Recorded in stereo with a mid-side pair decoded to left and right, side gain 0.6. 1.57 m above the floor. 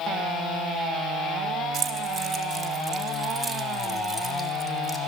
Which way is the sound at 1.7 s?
55° right.